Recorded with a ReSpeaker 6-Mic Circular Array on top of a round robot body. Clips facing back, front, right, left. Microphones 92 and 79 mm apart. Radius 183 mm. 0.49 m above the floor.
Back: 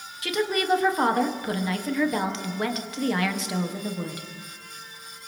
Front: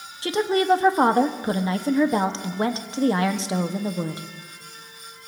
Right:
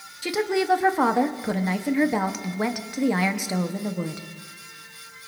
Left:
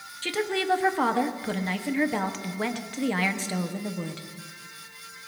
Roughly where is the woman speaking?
Ahead right.